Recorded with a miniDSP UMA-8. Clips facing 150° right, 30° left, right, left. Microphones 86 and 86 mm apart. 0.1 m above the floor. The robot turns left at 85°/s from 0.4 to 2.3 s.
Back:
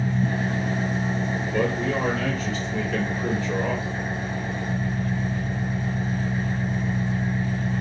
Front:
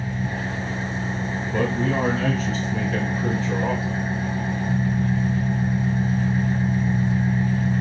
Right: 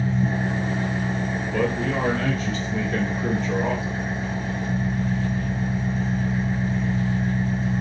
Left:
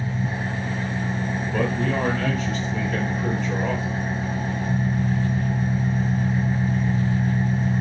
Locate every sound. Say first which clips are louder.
0.0 s an engine running: back 3 dB, right 4 dB; 115° right, 1.8 m; by 7.8 s 85° left, 1.8 m
1.5 s a man speaking: front 2 dB, even; 45° left, 1.5 m; by 4.0 s 25° right, 1.5 m